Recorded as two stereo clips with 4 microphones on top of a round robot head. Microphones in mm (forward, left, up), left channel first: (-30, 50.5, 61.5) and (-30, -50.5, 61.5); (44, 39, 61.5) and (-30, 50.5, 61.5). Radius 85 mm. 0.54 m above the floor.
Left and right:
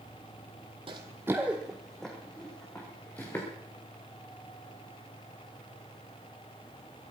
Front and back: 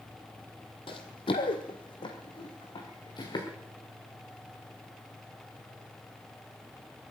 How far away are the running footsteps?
About 1.2 m.